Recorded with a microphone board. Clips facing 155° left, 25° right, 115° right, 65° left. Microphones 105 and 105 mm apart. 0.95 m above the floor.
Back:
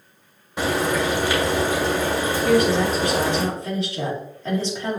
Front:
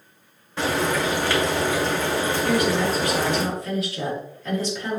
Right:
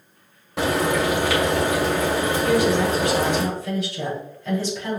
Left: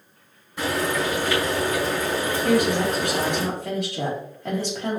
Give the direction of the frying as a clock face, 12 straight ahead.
4 o'clock.